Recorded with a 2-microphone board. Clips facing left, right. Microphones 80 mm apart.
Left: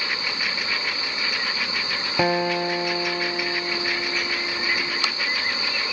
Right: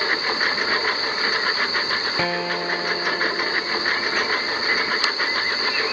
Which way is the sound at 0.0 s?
45° right (ahead or behind).